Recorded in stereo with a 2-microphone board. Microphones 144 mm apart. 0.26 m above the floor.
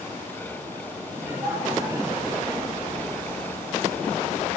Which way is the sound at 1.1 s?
15° right (ahead or behind).